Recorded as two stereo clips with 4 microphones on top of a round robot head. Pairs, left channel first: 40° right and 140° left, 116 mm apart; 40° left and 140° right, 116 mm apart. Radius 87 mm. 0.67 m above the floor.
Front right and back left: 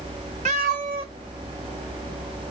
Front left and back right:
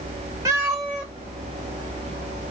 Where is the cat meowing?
165° left, 0.5 m; by 2.5 s 55° left, 1.0 m.